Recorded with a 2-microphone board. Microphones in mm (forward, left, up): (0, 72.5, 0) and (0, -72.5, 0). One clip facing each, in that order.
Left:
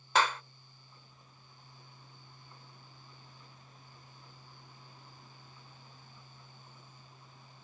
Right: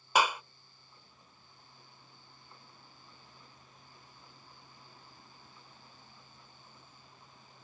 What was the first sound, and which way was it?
A clap, 10° right (ahead or behind).